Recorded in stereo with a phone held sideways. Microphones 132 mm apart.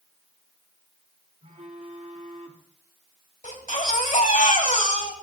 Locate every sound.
1.4 s a phone buzzing: 65° right (ahead or behind), 2 m
3.4 s a baby crying: 80° left, 2.5 m